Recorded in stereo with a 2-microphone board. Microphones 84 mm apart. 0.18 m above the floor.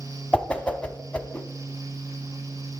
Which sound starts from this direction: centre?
A whoosh, at 0.3 s.